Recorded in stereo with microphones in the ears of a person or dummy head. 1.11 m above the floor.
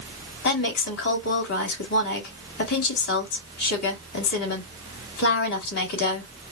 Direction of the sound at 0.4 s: 60° left (ahead or behind).